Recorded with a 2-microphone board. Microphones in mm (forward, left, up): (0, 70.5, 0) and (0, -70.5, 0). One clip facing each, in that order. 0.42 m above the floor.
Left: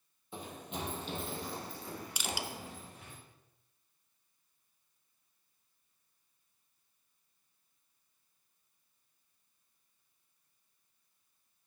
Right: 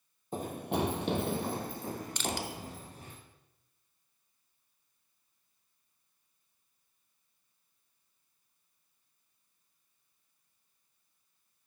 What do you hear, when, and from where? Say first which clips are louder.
0.3 s running footsteps: right 10 dB; 45° right (ahead or behind), 0.9 m; by 3.2 s 35° right (ahead or behind), 2.5 m
2.2 s crushing: right 4 dB; 10° left (ahead or behind), 0.8 m